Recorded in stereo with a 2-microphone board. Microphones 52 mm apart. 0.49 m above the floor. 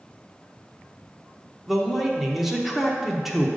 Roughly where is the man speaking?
Centre.